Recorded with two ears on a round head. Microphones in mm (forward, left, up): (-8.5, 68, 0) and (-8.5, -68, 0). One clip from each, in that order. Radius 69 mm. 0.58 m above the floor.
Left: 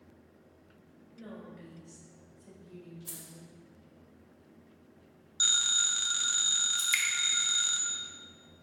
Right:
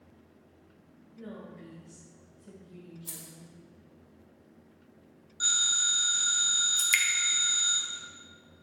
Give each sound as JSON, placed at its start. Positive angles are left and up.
{"t": 1.1, "sound": "a woman speaking", "side_deg": 60, "distance_m": 2.5}
{"t": 3.1, "sound": "keys jangling", "side_deg": 0, "distance_m": 1.3}
{"t": 5.4, "sound": "a phone ringing", "side_deg": 50, "distance_m": 0.9}
{"t": 6.8, "sound": "dripping", "side_deg": -15, "distance_m": 0.8}